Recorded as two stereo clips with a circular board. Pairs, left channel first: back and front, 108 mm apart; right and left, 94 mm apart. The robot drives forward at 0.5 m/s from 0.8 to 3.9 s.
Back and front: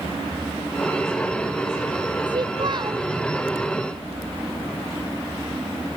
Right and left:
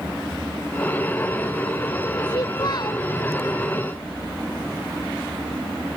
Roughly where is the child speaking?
Ahead right.